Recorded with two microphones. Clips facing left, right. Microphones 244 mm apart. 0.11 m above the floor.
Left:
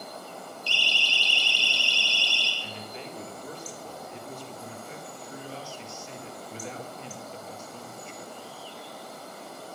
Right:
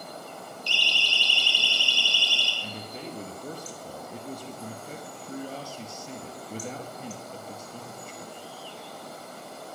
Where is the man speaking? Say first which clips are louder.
Right 3 dB; 45° right (ahead or behind), 2.5 m.